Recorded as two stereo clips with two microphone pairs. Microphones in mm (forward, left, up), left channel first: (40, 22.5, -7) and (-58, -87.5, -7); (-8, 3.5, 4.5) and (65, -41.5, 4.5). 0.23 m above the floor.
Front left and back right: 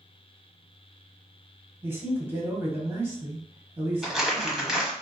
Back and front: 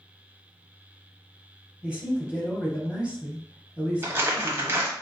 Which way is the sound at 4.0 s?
50° right.